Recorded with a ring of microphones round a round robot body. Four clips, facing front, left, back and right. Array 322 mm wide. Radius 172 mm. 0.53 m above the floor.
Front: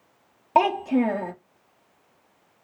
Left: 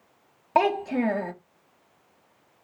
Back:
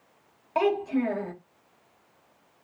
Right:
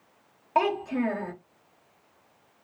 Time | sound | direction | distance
0.6 | a child speaking | 35° left | 0.7 m